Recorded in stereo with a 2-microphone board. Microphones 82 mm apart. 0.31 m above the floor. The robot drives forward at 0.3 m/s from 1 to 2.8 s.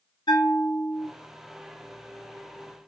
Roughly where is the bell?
Left.